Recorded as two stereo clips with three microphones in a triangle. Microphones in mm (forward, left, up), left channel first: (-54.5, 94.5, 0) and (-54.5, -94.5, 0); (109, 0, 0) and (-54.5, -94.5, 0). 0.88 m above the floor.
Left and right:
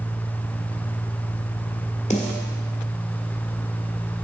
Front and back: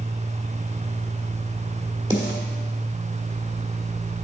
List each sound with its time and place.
2.1 s a snare drum: 145° left, 1.5 m